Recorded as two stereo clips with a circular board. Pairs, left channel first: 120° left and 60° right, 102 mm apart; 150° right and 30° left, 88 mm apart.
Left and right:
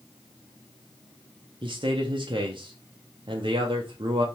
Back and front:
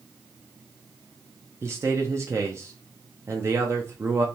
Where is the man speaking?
25° right, 0.5 m.